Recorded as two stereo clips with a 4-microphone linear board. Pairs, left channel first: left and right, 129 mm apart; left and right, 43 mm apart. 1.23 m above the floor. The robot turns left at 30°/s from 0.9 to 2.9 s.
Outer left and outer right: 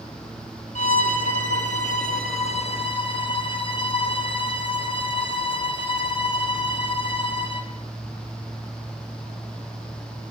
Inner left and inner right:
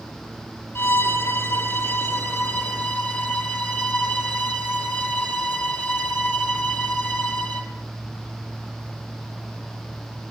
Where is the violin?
100° left, 4 m; by 7.7 s 40° left, 4 m.